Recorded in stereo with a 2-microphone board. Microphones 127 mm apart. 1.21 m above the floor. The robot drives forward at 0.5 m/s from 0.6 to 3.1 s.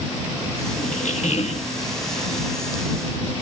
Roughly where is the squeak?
Left.